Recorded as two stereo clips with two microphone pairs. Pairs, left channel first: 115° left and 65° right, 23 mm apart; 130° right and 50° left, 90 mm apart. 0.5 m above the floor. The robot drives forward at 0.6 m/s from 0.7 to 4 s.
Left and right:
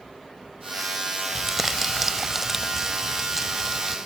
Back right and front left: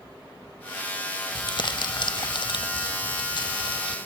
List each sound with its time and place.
1.4 s crumpling: 145° right; by 4.0 s 155° right